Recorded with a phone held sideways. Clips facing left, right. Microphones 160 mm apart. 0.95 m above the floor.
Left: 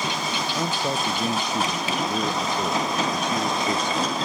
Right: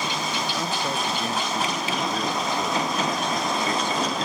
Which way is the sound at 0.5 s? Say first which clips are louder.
Left 2 dB; 15° left (ahead or behind).